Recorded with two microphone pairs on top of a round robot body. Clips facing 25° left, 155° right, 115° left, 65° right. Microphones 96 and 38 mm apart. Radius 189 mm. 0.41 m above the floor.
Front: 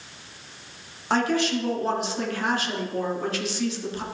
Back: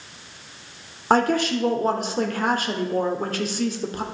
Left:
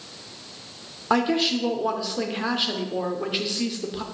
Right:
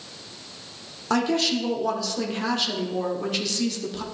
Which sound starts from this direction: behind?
A woman speaking, at 1.1 s.